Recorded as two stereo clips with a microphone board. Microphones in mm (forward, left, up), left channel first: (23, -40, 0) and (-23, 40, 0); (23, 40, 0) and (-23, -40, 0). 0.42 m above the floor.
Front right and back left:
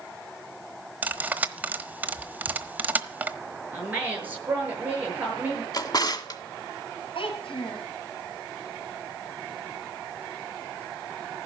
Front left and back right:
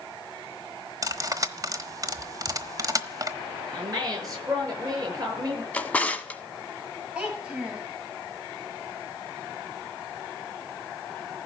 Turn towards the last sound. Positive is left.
turn(degrees=-40)